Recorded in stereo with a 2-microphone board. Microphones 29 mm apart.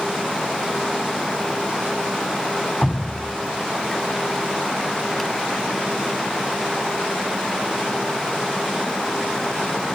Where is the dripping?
5° left (ahead or behind), 1.4 m.